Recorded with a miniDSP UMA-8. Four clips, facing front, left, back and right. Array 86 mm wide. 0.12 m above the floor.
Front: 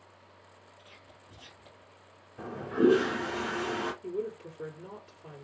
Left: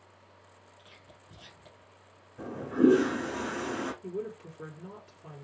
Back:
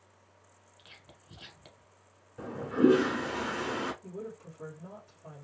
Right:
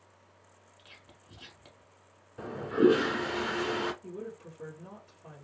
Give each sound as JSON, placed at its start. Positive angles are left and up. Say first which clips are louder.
{"t": 0.8, "sound": "whispering", "louder": "even, front 3 dB", "azimuth_deg": -155, "distance_m": 1.2}
{"t": 2.4, "sound": "a toilet flushing", "louder": "even, even", "azimuth_deg": -85, "distance_m": 1.0}
{"t": 4.0, "sound": "a woman speaking", "louder": "left 4 dB, front 7 dB", "azimuth_deg": 45, "distance_m": 1.7}